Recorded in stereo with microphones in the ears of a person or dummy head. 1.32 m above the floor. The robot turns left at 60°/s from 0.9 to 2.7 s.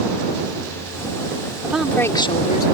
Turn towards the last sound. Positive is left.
turn(degrees=125)